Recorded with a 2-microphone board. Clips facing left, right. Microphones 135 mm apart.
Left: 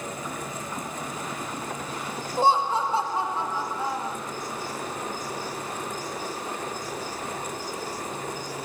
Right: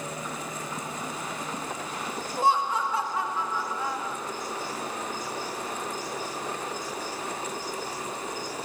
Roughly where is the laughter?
Left.